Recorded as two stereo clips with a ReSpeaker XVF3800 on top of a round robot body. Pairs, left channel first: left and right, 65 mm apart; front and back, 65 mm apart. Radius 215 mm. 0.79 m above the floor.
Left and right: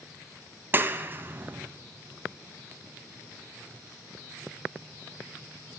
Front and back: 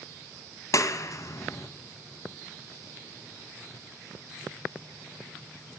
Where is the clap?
35° right, 0.9 m.